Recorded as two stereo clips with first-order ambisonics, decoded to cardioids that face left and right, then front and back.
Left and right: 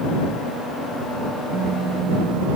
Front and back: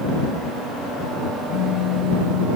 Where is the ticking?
I don't hear ticking.